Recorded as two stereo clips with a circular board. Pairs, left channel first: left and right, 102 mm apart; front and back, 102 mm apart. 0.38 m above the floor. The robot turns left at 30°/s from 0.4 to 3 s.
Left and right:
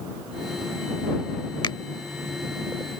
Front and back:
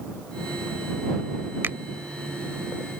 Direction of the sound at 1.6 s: 115° left.